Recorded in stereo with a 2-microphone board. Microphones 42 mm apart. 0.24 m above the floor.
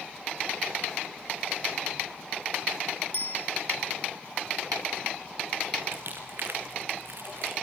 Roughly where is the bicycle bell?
Left.